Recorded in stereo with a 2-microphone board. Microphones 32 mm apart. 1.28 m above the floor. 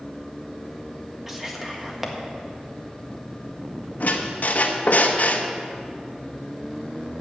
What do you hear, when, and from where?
1.3 s whispering: 10° right (ahead or behind), 1.7 m
4.0 s a squeak: 60° left (ahead or behind), 0.9 m